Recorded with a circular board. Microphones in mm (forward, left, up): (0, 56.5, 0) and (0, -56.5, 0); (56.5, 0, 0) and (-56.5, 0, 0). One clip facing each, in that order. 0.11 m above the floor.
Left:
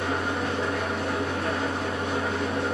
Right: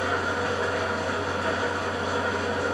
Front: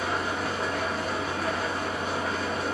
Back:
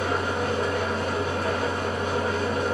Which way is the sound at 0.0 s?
175° right.